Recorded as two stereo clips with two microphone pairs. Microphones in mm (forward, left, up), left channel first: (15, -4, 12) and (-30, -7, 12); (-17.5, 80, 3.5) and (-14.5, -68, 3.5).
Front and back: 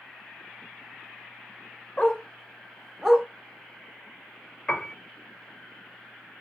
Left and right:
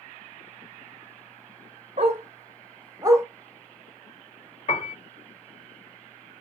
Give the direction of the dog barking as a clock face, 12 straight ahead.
2 o'clock.